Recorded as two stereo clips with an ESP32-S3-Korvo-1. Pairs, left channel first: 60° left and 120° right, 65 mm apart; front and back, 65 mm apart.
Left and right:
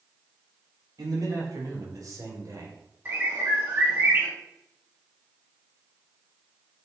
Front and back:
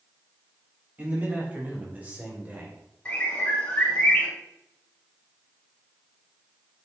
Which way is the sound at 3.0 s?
65° right.